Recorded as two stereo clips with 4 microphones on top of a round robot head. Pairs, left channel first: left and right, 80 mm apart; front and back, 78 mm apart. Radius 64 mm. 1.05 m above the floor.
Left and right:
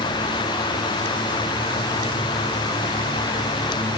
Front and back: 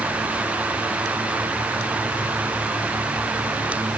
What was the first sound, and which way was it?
Only background noise.